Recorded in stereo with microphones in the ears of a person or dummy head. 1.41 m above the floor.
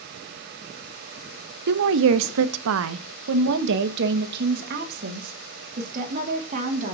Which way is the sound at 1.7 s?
60° right (ahead or behind).